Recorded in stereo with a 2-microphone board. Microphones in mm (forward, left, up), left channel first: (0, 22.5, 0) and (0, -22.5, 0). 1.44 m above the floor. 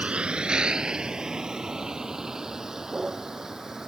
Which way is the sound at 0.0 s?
30° right (ahead or behind).